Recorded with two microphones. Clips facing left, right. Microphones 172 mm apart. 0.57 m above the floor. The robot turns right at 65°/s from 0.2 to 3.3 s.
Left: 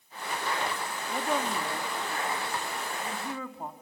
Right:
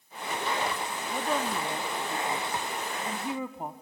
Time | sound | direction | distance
1.1 | a woman speaking | 5° left (ahead or behind) | 0.9 m